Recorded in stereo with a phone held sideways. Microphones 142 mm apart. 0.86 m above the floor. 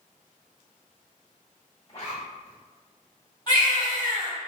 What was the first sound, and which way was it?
A zipper, 45° left (ahead or behind).